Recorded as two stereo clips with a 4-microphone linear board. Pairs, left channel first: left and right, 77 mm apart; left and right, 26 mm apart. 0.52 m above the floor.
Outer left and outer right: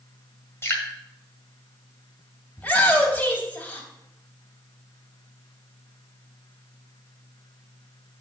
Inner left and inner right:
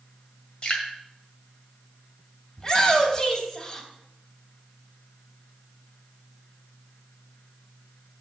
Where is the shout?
20° left (ahead or behind), 3 m.